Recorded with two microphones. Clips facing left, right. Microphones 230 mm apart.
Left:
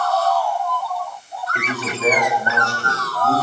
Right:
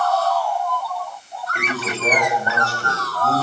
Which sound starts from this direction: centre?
A man speaking, at 1.6 s.